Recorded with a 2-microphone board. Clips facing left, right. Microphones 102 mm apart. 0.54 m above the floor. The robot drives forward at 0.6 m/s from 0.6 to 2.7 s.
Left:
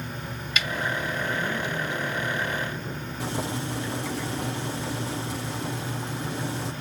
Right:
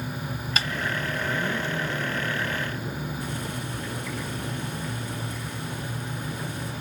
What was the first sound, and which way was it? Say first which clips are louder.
A snare drum: even; 35° right (ahead or behind).